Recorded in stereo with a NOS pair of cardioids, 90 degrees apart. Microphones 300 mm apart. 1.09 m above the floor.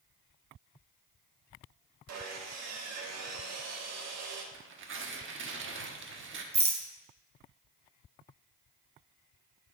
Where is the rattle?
20° right, 1.4 m.